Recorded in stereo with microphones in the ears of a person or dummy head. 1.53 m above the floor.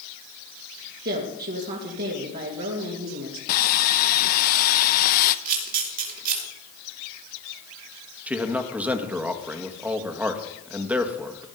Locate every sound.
1.1 s a woman speaking: 55° right (ahead or behind), 2.5 m
3.5 s sawing: 50° left (ahead or behind), 0.8 m
5.5 s a camera shutter: 45° right (ahead or behind), 3 m
8.3 s a man speaking: centre (ahead or behind), 1.5 m